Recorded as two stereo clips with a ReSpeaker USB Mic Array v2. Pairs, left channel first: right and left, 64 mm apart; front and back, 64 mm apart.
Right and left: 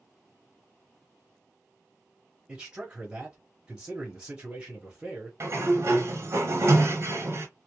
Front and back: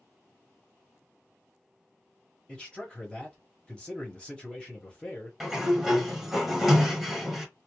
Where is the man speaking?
45° left, 1.0 m.